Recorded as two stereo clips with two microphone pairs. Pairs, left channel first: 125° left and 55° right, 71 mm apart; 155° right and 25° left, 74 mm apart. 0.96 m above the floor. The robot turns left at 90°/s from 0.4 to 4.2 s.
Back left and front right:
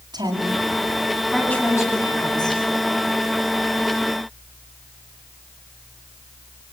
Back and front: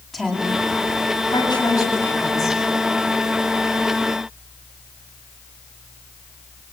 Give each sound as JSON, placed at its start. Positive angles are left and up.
{"t": 0.1, "sound": "a woman speaking", "azimuth_deg": -65, "distance_m": 8.5}